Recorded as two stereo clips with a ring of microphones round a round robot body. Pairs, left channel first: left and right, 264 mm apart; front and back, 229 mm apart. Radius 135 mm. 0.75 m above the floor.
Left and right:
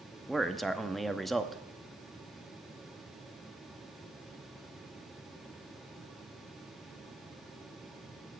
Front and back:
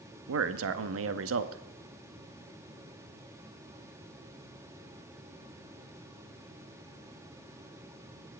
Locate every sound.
0.3 s a man speaking: straight behind, 0.8 m